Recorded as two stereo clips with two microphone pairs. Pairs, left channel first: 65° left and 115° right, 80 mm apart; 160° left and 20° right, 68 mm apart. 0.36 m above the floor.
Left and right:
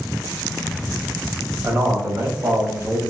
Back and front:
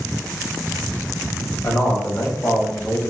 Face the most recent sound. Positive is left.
turn(degrees=-135)